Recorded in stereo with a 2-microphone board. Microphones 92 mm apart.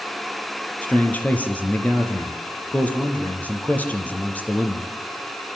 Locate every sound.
0.8 s a man speaking: 20° left (ahead or behind), 4 m